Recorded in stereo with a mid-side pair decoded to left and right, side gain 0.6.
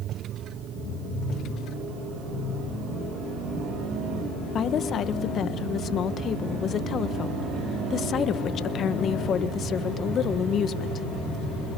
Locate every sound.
4.5 s a woman speaking: 45° left, 1.4 m